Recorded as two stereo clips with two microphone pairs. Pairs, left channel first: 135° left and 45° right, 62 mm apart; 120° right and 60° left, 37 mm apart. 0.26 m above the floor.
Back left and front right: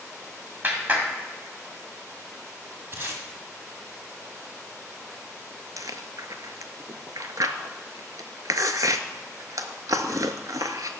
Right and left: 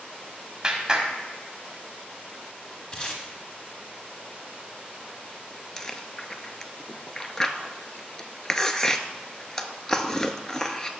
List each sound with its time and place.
0.6 s a clap: 5° right, 1.5 m
2.9 s tape being pulled: 70° right, 1.4 m
5.8 s chewing: 50° right, 0.6 m